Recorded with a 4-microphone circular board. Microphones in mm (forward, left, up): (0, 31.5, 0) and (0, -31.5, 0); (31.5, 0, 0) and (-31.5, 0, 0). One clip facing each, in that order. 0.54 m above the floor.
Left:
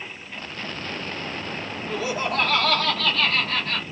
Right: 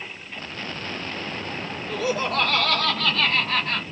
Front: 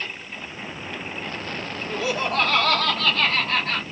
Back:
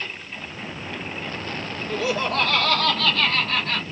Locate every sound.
1.9 s laughter: 65° left, 1.3 m; by 3.8 s 35° right, 1.4 m